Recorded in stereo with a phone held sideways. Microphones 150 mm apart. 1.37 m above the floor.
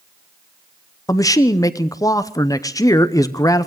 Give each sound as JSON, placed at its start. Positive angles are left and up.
{"t": 1.1, "sound": "a man speaking", "side_deg": 20, "distance_m": 0.7}